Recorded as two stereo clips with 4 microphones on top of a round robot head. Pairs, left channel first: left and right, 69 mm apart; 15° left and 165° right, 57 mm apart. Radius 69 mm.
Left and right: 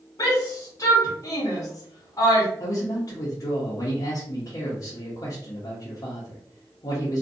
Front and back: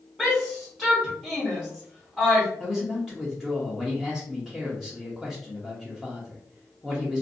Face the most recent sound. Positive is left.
turn(degrees=105)